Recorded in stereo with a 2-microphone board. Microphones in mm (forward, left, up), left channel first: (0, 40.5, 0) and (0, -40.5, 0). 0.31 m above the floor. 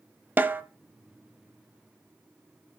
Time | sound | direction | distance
0.4 | a snare drum | 20° right (ahead or behind) | 0.8 m